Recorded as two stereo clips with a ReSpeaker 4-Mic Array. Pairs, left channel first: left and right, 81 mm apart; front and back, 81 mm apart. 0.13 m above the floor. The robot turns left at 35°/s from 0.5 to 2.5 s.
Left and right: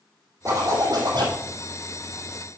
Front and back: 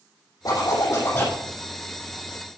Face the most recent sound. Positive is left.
turn(degrees=-105)